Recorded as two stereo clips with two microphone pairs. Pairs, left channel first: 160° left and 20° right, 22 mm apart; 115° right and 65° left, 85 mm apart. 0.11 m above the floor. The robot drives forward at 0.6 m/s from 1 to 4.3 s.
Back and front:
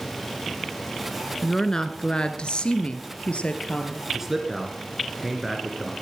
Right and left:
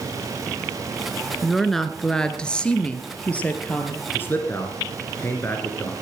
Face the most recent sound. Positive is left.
turn(degrees=-90)